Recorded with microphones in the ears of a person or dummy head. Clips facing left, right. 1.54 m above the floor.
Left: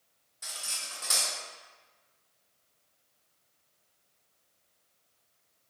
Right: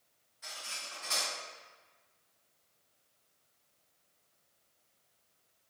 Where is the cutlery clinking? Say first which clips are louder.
Left 1 dB; 60° left (ahead or behind), 1.8 m.